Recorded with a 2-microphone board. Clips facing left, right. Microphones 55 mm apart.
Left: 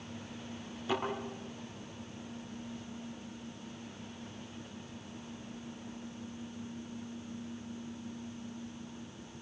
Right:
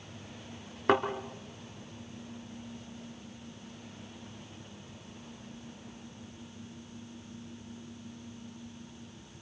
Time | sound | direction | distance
0.9 | a thud | 65° right (ahead or behind) | 3.5 m